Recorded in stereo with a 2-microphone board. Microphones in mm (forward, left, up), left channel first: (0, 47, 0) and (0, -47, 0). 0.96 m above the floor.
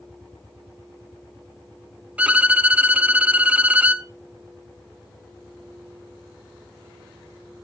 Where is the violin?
15° right (ahead or behind), 0.5 m.